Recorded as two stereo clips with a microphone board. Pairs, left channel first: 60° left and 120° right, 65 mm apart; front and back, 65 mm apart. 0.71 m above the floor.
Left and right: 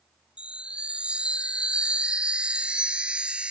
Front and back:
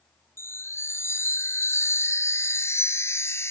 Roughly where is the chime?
Ahead right.